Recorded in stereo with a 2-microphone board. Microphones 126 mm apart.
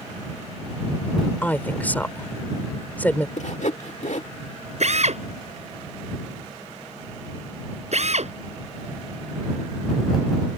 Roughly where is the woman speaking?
Centre.